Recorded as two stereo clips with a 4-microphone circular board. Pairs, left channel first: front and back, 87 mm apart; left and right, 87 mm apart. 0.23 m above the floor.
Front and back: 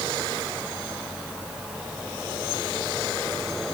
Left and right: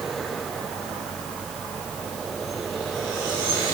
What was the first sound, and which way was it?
Only background noise.